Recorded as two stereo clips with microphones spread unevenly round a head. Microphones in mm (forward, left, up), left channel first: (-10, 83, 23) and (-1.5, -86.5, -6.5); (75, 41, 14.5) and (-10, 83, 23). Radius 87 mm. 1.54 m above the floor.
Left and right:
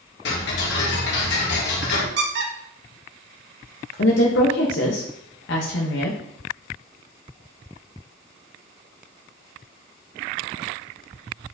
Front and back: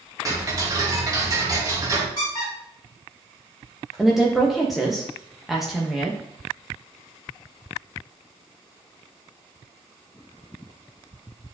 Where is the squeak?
85° right, 1.3 m.